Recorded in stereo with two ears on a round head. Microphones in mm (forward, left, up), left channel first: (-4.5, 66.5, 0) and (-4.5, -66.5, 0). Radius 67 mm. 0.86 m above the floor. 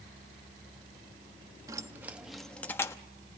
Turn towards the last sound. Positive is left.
turn(degrees=20)  # may be behind; listen again after turning